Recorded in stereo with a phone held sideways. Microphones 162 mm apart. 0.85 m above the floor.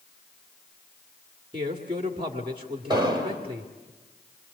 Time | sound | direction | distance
1.5 | a man speaking | 35° right (ahead or behind) | 2 m
2.9 | an explosion | 25° right (ahead or behind) | 4 m